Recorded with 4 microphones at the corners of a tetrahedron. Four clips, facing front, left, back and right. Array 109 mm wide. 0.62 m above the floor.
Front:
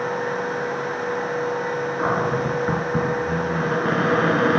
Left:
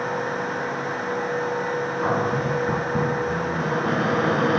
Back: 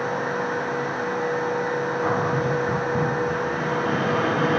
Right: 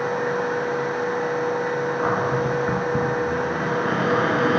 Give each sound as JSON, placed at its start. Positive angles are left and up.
{"t": 2.0, "sound": "a cupboard door", "azimuth_deg": -25, "distance_m": 4.5}